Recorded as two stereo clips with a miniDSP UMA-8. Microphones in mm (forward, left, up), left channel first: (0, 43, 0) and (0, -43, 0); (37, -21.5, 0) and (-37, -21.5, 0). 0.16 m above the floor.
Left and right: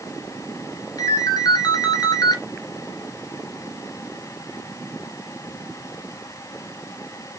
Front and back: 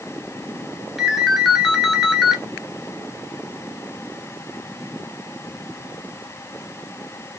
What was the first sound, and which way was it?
A ringtone, 90° left.